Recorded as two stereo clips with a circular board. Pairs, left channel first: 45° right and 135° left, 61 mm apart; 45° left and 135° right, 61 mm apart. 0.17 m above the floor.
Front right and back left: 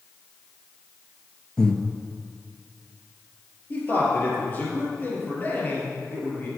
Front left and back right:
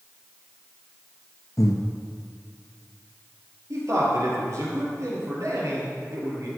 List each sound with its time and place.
1.6 s breathing: 30° left, 1.1 m
3.7 s a man speaking: 105° right, 4 m